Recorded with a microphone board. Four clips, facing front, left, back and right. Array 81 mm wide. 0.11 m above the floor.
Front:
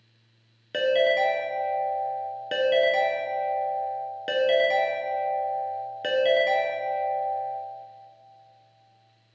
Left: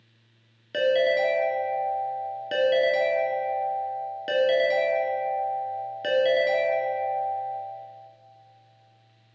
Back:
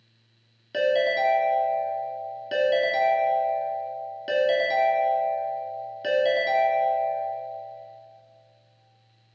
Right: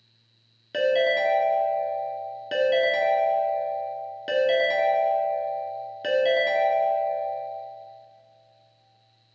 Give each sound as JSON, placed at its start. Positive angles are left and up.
{"t": 0.7, "sound": "a ringtone", "azimuth_deg": 0, "distance_m": 0.6}